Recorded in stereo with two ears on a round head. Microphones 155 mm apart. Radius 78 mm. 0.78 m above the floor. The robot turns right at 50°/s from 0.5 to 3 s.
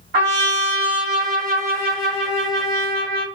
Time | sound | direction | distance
0.1 | a trumpet | 75° right | 1.9 m